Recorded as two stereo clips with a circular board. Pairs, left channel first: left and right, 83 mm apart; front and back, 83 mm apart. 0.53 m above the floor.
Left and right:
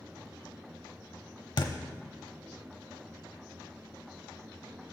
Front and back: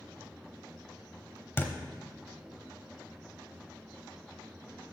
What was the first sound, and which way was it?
A thud, 65° left.